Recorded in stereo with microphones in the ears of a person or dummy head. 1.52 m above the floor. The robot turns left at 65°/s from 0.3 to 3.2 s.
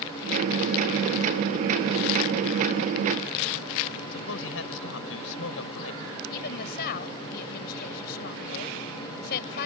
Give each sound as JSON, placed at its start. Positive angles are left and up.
{"t": 4.1, "sound": "a man speaking", "side_deg": 70}
{"t": 6.3, "sound": "a woman speaking", "side_deg": 50}